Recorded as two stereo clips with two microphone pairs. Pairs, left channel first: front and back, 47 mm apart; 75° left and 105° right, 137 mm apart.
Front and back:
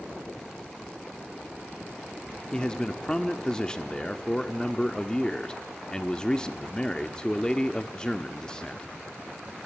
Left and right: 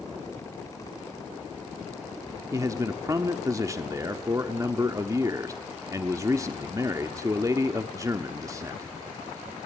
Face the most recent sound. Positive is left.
turn(degrees=-55)